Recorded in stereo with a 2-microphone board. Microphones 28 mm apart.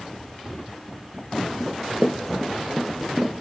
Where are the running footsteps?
25° left (ahead or behind), 1.4 m; by 3.3 s 25° right (ahead or behind), 1.6 m.